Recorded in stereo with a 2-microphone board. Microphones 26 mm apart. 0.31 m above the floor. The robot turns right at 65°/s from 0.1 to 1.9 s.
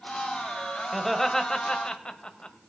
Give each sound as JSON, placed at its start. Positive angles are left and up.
{"t": 0.9, "sound": "laughter", "side_deg": -5, "distance_m": 1.2}